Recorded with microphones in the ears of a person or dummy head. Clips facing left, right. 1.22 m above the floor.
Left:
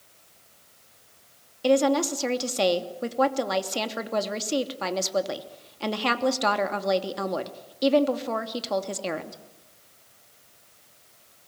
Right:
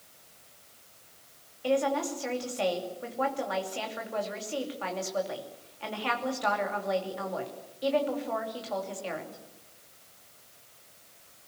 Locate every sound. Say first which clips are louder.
1.6 s a woman speaking: left 6 dB; 55° left (ahead or behind), 2.5 m